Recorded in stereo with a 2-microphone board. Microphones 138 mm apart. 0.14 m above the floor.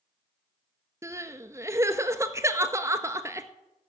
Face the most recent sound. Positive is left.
turn(degrees=-20)  # may be behind; listen again after turning